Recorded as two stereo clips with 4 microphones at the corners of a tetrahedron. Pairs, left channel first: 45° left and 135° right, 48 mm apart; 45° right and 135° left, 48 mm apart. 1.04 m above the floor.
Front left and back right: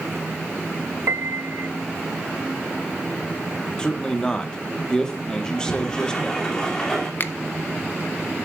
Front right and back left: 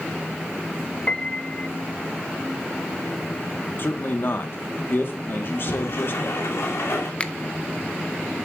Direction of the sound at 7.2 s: 15° left.